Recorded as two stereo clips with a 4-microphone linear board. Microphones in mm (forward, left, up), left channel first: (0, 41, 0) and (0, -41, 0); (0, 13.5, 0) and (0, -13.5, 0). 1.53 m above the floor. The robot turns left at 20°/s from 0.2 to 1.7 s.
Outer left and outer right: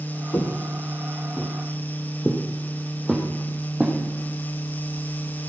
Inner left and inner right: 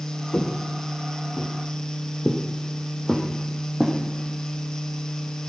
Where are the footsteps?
30° left (ahead or behind), 1.7 m; by 4.0 s 10° right (ahead or behind), 3 m.